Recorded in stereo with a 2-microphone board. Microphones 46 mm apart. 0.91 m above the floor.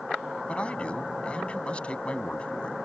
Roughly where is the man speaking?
Left.